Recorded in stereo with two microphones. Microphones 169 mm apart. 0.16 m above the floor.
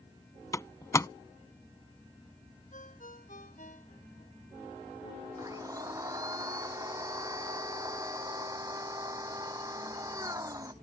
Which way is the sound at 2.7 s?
50° left (ahead or behind).